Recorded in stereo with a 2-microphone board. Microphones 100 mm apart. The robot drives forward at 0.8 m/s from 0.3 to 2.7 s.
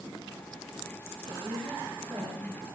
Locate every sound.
1.3 s a woman speaking: 65° right (ahead or behind), 10 m; by 2.6 s 60° right (ahead or behind), 10.5 m